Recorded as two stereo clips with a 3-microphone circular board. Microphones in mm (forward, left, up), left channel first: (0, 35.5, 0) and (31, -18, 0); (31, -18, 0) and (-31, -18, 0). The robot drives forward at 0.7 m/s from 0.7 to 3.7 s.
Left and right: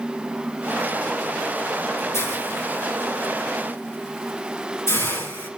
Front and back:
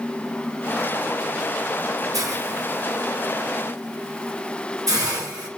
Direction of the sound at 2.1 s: 155° left.